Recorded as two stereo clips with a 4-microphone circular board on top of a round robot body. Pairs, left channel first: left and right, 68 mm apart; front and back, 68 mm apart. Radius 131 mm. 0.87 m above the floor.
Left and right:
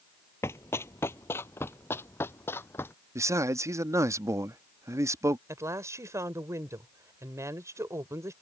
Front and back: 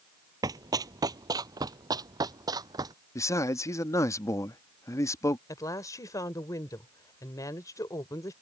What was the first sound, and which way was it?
Running footsteps, 150° left.